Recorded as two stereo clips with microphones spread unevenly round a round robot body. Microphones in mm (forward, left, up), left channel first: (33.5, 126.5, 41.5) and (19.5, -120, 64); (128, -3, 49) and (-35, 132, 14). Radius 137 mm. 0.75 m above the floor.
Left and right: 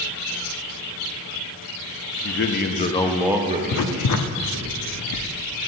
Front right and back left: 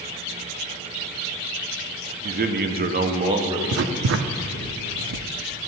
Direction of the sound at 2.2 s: 115° left.